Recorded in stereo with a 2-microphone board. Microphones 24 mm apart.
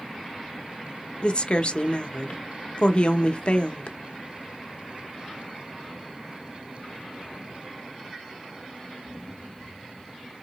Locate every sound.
1.2 s a woman speaking: 40° left (ahead or behind), 0.7 m